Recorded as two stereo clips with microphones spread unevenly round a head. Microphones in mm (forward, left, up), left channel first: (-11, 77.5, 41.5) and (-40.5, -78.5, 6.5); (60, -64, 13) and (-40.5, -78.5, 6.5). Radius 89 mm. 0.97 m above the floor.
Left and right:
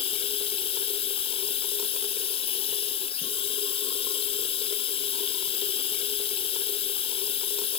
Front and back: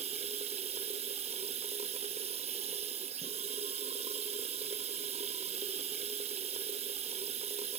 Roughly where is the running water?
Behind left.